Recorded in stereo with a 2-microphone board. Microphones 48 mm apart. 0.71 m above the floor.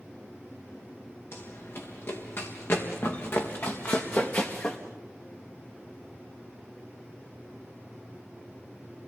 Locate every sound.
1.3 s running footsteps: 60° left (ahead or behind), 6 m; by 4.8 s 35° left (ahead or behind), 3 m